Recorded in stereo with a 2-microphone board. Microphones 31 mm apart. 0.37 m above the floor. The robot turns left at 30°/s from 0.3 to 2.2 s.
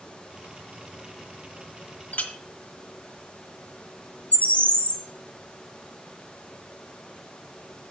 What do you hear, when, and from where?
2.1 s a clink: 65° left (ahead or behind), 1.3 m; by 2.3 s 60° left (ahead or behind), 1.3 m
4.3 s a bird: 55° left (ahead or behind), 1.3 m